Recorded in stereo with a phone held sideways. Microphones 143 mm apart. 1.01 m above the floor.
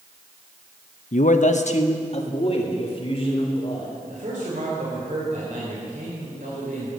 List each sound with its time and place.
1.1 s a man speaking: 60° left (ahead or behind), 0.7 m; by 3.9 s 40° left (ahead or behind), 4 m
4.1 s a man speaking: 65° right (ahead or behind), 3.5 m